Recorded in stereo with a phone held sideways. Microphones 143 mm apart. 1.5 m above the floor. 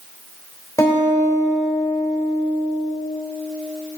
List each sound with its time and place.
0.8 s a guitar: 20° left (ahead or behind), 3 m